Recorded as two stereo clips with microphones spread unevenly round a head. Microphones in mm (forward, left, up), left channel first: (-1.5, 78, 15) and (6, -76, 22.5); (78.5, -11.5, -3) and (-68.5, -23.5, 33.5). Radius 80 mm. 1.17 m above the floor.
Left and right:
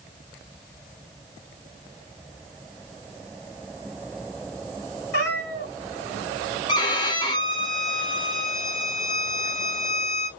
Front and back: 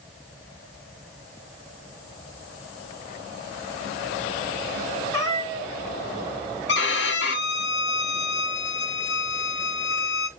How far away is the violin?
About 1.0 m.